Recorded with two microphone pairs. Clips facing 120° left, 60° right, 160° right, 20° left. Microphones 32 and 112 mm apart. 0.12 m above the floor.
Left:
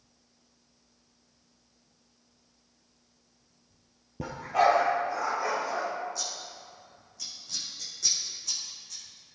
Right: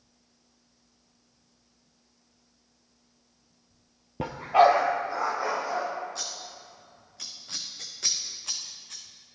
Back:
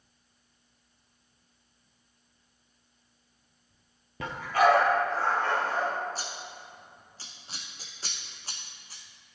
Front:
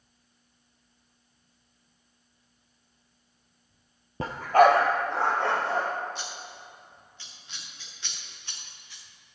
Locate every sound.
4.2 s a dog barking: 30° right, 1.0 m; by 5.9 s 10° left, 2.5 m
6.2 s scissors: 105° right, 1.5 m